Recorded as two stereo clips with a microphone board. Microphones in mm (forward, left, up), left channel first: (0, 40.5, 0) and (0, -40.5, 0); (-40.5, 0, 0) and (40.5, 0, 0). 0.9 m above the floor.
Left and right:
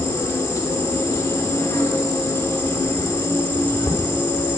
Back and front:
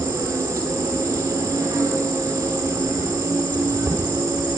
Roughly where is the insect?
Ahead left.